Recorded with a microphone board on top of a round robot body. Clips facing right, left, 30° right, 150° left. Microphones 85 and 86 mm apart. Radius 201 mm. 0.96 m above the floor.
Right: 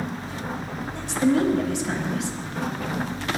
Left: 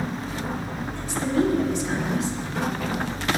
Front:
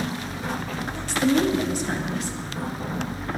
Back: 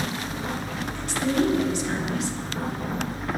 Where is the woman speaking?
70° right, 1.8 m.